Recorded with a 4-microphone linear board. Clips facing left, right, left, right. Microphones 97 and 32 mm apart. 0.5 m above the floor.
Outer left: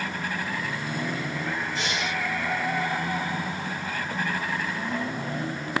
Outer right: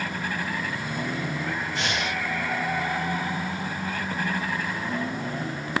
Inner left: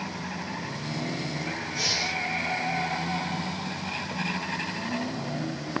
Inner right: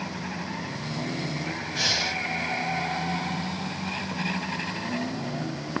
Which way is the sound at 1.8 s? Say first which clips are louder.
Outer right 1 dB, inner right 3 dB; 65° right (ahead or behind).